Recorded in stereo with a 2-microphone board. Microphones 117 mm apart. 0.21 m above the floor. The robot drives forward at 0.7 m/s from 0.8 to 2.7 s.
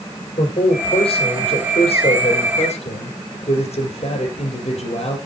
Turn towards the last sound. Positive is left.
turn(degrees=65)  # may be behind; listen again after turning